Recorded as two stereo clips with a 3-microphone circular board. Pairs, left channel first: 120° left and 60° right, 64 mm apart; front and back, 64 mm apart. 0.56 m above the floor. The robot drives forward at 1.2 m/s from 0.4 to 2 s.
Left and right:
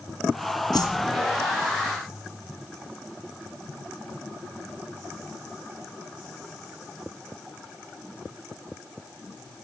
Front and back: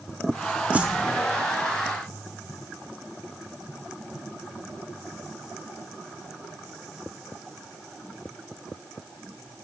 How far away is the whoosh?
About 3 m.